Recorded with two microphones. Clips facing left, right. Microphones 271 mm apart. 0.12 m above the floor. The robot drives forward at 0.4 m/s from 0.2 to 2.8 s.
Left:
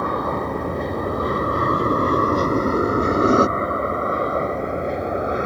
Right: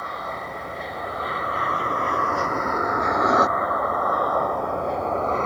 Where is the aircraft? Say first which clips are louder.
Left 11 dB; 55° left (ahead or behind); by 5.5 s 15° left (ahead or behind).